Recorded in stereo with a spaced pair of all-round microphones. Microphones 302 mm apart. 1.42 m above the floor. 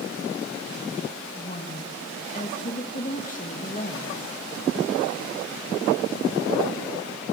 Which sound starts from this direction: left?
A woman speaking, at 1.4 s.